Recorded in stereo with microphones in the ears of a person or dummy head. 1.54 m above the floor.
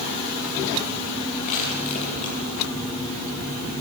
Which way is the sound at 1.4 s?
40° left (ahead or behind).